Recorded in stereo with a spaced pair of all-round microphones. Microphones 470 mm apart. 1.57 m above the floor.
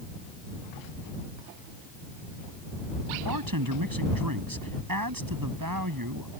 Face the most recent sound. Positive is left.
turn(degrees=-45)  # may be behind; listen again after turning